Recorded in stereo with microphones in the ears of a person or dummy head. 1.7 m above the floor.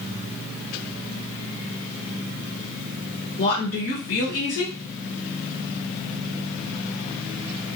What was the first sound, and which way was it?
A woman speaking, 45° left (ahead or behind).